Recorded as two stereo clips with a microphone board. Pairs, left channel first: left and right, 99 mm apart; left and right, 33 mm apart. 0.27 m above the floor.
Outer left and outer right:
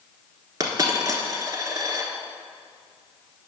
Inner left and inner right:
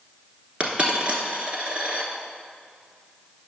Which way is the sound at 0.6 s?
40° right (ahead or behind).